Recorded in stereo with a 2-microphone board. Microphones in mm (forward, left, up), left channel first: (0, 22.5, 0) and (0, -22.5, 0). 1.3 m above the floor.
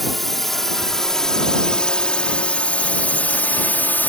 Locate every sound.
0.0 s a drone: centre (ahead or behind); by 4.1 s 40° left (ahead or behind)